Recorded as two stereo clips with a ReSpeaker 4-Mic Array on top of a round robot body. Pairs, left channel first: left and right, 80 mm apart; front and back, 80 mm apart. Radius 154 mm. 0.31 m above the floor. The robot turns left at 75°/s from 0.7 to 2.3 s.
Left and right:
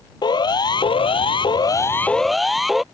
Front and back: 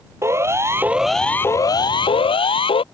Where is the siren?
120° left; by 2.8 s straight ahead.